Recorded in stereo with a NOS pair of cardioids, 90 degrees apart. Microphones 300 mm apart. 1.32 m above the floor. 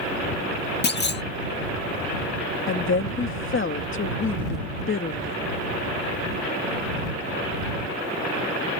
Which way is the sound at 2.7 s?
40° left.